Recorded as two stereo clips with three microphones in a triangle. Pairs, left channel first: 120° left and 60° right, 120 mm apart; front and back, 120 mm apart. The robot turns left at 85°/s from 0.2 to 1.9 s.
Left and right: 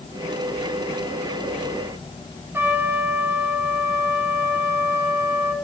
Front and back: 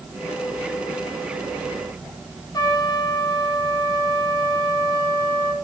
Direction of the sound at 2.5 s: 5° right.